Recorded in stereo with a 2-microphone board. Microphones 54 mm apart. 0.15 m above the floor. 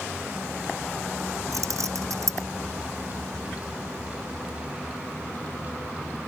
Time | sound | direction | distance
1.5 | keys jangling | 80° right | ?